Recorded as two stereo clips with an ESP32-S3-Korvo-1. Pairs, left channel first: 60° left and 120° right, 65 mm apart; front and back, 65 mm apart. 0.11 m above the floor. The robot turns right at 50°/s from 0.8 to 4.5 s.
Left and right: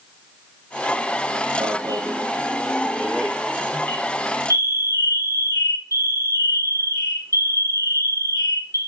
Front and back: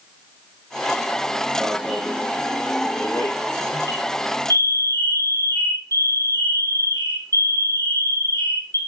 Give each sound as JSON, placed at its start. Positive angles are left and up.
{"t": 1.6, "sound": "an alarm", "azimuth_deg": -110, "distance_m": 5.0}